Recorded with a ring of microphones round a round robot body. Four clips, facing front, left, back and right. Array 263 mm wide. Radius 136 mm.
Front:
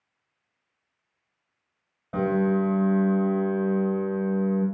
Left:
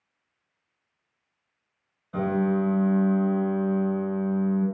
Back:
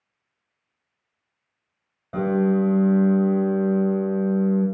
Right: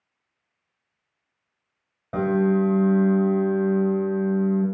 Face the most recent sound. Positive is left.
turn(degrees=-95)